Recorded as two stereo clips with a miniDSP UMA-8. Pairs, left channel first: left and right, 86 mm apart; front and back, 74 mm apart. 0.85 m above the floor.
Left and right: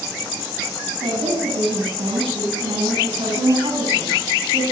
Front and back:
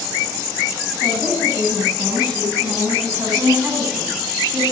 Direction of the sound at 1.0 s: 110° right.